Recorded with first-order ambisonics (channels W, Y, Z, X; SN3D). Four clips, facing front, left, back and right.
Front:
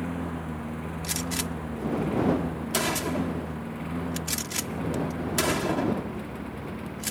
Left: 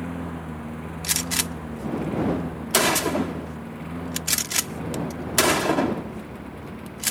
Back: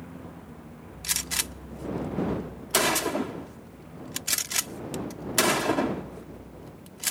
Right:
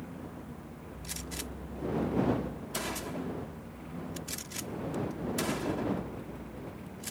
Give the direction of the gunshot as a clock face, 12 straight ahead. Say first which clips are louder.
Left 15 dB, back 2 dB; 8 o'clock.